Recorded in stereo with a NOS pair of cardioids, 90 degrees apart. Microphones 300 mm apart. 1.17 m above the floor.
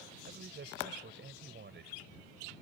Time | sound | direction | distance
0.3 | a man speaking | 35° right | ?